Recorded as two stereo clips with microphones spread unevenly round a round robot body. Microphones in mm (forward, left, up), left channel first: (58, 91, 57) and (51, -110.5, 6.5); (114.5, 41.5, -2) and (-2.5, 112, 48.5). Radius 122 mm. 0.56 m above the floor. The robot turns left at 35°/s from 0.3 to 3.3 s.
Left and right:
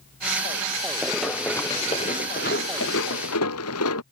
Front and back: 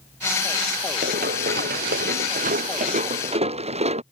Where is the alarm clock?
No alarm clock in this recording.